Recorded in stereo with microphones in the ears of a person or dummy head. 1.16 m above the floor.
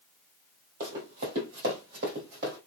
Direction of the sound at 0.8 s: 50° right (ahead or behind).